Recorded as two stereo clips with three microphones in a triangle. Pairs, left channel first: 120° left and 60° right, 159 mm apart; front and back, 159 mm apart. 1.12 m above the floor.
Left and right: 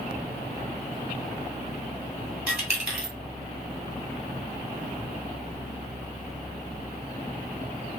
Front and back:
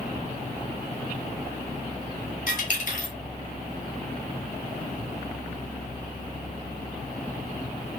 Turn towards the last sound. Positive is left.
turn(degrees=20)